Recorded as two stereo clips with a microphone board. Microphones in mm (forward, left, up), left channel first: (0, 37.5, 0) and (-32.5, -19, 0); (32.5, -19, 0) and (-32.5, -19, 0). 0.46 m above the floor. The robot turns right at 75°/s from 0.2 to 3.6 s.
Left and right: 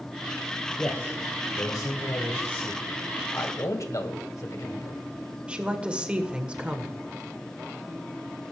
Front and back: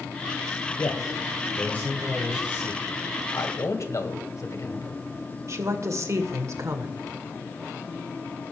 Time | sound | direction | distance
0.8 | a man speaking | 15° right | 2.0 m
3.3 | a man speaking | 10° left | 2 m
5.5 | a woman speaking | 175° left | 1.9 m